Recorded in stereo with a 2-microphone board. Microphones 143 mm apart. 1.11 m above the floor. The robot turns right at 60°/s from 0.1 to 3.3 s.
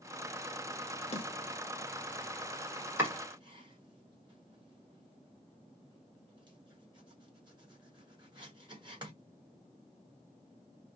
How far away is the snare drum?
About 1.2 m.